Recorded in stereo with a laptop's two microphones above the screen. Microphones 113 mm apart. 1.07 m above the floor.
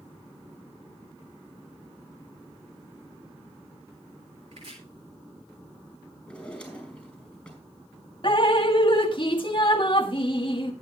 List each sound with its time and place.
4.5 s chopping: 75° right (ahead or behind), 5 m
6.3 s a drawer: 10° left (ahead or behind), 5 m
8.2 s dripping: 50° left (ahead or behind), 1.5 m